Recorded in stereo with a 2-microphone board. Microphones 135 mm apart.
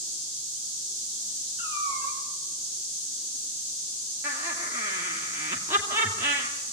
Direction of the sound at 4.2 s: 20° right (ahead or behind).